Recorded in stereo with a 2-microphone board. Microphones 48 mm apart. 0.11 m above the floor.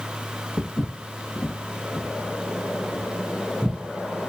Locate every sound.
0.6 s footsteps: 50° left (ahead or behind), 0.8 m; by 3.8 s 25° right (ahead or behind), 1.7 m